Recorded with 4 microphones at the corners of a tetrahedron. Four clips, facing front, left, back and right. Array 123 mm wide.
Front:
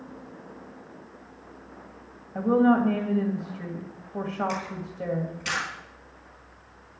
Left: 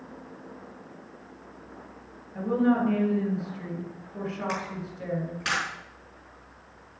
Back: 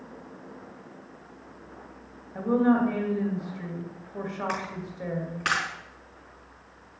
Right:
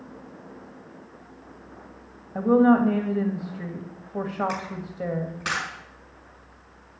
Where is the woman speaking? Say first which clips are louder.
Right 6 dB, front 2 dB; 70° right, 2.5 m.